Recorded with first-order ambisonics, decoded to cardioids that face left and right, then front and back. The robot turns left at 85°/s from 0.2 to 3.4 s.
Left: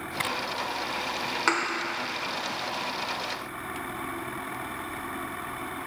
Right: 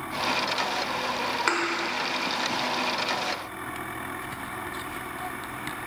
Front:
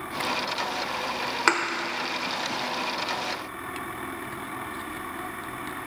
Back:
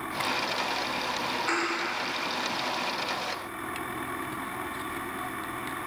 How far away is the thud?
About 1.0 m.